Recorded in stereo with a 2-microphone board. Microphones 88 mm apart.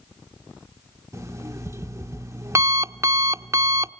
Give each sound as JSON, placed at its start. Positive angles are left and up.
{"t": 1.1, "sound": "an alarm clock", "side_deg": -35, "distance_m": 0.6}